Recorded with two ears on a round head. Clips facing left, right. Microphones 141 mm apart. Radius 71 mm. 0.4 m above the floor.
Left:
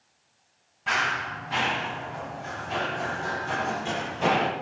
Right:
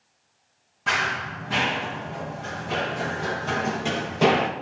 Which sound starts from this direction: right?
Running footsteps, at 0.9 s.